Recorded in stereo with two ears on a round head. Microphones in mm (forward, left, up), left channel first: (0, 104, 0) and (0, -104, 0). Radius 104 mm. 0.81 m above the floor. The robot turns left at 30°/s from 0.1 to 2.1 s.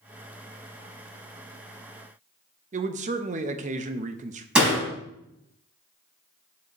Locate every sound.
2.7 s a man speaking: 35° right (ahead or behind), 0.6 m
4.5 s a door slam: 5° right (ahead or behind), 4 m